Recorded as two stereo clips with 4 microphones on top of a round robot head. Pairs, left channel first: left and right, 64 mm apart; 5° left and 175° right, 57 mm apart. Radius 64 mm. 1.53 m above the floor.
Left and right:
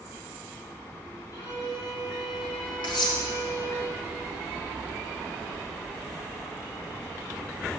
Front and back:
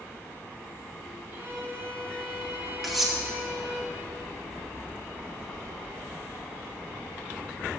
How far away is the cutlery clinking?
About 1.3 m.